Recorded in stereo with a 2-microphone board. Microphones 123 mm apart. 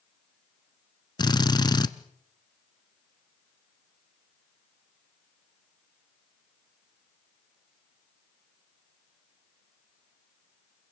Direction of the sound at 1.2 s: 35° left (ahead or behind).